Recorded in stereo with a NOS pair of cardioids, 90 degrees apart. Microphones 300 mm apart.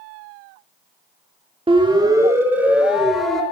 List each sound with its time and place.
1.7 s a siren: 20° right, 5 m; by 3.4 s straight ahead, 6.5 m